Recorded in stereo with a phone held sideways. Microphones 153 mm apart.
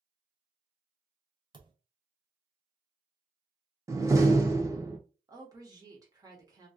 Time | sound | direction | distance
1.5 | a thud | 30° right (ahead or behind) | 0.6 m
3.9 | a door slam | 20° right (ahead or behind) | 0.6 m
5.3 | a woman speaking | 25° right (ahead or behind) | 1.0 m